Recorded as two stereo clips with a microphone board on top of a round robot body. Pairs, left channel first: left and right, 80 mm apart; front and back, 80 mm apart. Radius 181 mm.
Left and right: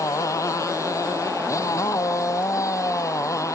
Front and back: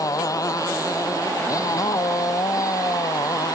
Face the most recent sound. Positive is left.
turn(degrees=40)